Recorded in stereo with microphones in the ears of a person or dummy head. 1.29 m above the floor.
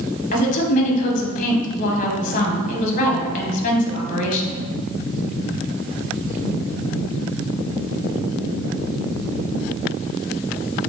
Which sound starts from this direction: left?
A woman speaking, at 0.3 s.